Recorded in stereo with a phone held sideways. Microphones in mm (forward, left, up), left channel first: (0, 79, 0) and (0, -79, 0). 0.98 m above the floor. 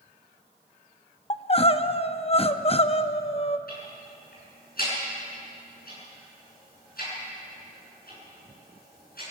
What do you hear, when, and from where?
1.3 s crying: 40° left (ahead or behind), 0.7 m
3.7 s ticking: 75° left (ahead or behind), 8.5 m